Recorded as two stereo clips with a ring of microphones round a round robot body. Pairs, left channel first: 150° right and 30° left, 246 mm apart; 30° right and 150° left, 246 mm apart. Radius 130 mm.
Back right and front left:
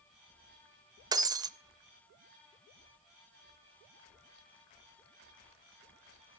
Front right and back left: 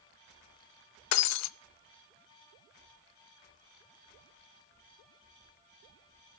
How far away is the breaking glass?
About 0.5 m.